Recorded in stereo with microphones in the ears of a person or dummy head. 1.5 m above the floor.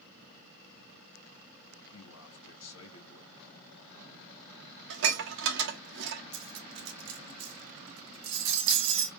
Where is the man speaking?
85° left, 2.5 m.